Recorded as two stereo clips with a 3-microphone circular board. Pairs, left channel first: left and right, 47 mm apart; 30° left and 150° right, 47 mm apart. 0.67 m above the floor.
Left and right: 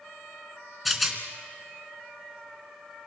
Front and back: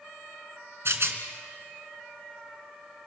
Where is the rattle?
175° right, 2.5 m.